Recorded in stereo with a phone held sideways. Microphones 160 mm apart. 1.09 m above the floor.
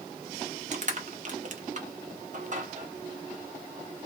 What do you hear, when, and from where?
0.7 s crushing: 50° right (ahead or behind), 0.8 m